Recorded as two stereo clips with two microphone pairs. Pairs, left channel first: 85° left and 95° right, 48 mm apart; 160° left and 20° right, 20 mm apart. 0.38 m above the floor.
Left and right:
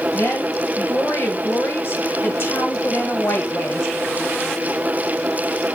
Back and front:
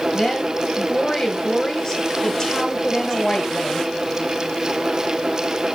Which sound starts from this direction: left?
A woman speaking, at 0.1 s.